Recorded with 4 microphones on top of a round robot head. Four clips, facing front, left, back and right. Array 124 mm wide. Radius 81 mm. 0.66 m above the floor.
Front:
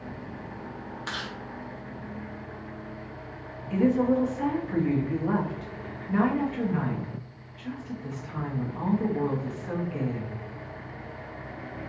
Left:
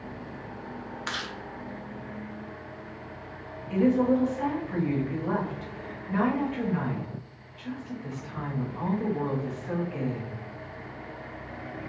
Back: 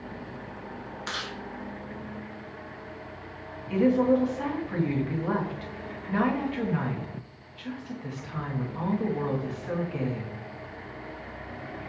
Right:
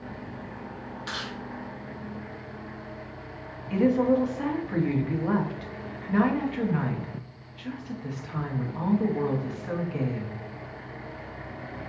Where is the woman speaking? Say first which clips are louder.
Right 1 dB, back 1 dB; 120° right, 1.1 m.